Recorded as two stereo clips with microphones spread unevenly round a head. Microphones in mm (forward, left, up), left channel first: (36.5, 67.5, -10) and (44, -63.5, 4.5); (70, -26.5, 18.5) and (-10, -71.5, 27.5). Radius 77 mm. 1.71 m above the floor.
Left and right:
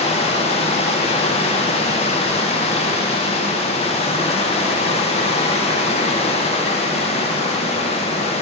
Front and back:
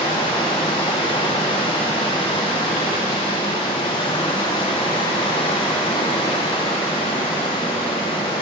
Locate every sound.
0.0 s running water: 65° left, 0.9 m